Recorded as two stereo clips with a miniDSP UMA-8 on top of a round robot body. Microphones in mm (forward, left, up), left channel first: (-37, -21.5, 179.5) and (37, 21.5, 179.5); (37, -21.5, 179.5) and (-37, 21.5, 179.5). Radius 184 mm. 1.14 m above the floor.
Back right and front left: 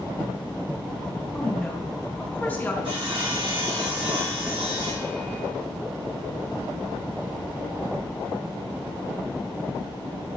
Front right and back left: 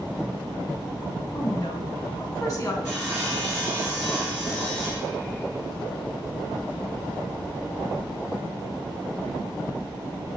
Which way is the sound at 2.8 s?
35° left.